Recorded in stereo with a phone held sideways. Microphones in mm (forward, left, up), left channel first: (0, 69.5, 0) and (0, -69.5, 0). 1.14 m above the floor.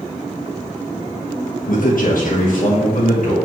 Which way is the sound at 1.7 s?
80° left.